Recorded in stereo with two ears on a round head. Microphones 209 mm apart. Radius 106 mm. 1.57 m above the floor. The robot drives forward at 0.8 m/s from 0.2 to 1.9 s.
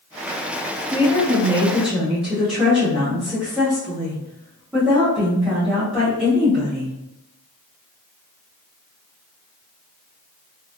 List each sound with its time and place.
0.9 s a woman speaking: 5° right (ahead or behind), 0.7 m